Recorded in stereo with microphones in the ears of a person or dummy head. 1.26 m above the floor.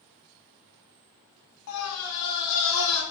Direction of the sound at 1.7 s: 85° left.